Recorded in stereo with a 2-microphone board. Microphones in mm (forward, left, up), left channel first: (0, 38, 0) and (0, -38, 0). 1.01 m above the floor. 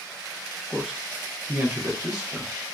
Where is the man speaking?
10° right (ahead or behind), 0.9 m; by 2.6 s 50° right (ahead or behind), 1.1 m.